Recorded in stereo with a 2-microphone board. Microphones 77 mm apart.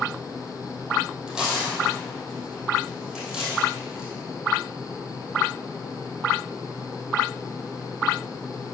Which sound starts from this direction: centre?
Tearing paper, at 1.3 s.